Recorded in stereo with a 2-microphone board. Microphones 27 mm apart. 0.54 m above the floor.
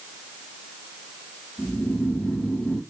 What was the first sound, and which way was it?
Snoring, 90° left.